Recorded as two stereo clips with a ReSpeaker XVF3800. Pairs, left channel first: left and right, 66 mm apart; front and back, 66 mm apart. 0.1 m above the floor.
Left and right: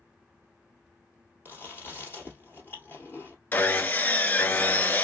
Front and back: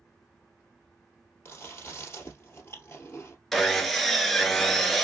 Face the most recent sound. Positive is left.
turn(degrees=85)